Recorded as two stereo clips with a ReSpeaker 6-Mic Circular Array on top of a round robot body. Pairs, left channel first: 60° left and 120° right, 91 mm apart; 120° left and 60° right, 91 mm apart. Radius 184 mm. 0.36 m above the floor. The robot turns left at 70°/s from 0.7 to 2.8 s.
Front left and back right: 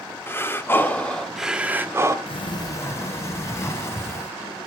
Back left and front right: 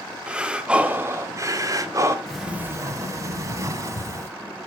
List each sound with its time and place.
0.3 s breathing: 10° left, 1.2 m; by 2.2 s 90° right, 1.2 m
2.3 s a sliding door: 35° left, 0.5 m; by 4.3 s straight ahead, 0.5 m